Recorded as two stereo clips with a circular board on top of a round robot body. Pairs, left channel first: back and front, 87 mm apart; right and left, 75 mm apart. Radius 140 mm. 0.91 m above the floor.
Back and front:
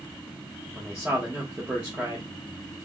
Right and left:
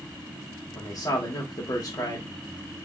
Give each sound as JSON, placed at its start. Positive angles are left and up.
{"t": 0.8, "sound": "a man speaking", "azimuth_deg": -75, "distance_m": 1.1}